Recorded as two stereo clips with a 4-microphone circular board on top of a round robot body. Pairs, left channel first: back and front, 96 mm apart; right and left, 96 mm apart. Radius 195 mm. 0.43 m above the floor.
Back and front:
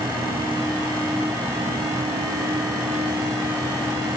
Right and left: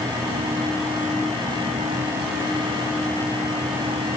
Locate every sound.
Only background noise.